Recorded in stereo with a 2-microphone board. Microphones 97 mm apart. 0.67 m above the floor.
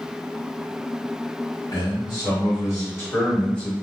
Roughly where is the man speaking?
Left.